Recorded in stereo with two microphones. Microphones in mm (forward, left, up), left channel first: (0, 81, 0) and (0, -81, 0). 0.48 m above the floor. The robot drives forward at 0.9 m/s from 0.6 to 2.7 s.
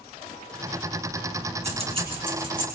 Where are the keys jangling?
40° right (ahead or behind), 3 m; by 2.6 s 30° right (ahead or behind), 3.5 m.